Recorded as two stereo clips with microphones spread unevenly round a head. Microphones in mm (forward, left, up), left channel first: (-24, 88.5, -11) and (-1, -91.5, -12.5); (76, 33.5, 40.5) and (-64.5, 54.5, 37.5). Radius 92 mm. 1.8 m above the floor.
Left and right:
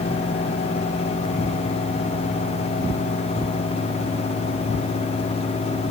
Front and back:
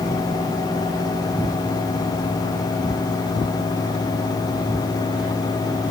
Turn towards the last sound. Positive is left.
No sound to turn to.